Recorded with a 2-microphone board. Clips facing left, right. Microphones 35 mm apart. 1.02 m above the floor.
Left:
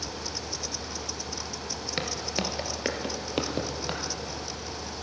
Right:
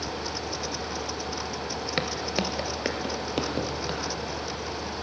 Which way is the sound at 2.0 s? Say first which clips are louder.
Right 2 dB; 20° right (ahead or behind).